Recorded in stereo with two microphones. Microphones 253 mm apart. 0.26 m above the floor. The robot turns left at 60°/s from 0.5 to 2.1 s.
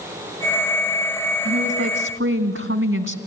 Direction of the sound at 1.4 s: 65° right.